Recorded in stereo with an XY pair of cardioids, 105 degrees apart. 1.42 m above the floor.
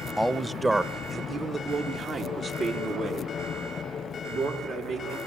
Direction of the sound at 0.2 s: 5° right.